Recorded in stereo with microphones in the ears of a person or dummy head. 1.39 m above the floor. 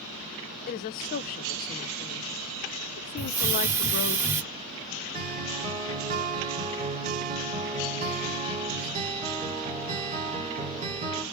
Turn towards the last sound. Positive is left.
turn(degrees=-30)  # may be behind; listen again after turning